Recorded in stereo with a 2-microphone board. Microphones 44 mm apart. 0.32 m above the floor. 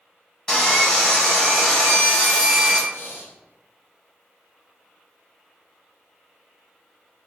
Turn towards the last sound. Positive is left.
turn(degrees=65)  # may be behind; listen again after turning